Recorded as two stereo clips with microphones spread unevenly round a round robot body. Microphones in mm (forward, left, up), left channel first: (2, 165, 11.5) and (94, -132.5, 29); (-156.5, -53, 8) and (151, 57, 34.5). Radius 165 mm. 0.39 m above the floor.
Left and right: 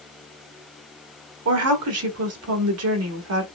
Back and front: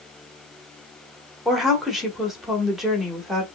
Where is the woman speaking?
75° right, 1.4 m.